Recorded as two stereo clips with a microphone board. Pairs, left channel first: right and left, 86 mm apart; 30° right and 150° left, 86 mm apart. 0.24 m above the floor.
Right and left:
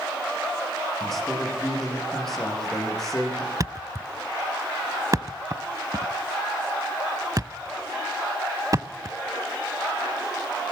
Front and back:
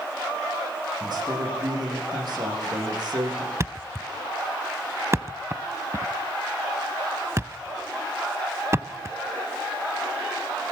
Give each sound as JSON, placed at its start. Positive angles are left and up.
{"t": 1.0, "sound": "a man speaking", "azimuth_deg": -175, "distance_m": 9.5}
{"t": 3.6, "sound": "a thud", "azimuth_deg": 110, "distance_m": 0.8}